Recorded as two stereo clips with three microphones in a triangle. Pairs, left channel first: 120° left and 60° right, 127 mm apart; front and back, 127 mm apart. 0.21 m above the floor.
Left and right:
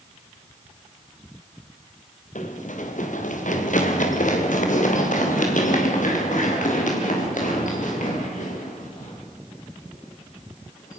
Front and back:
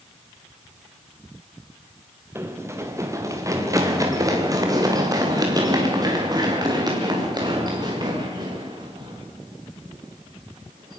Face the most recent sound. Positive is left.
turn(degrees=125)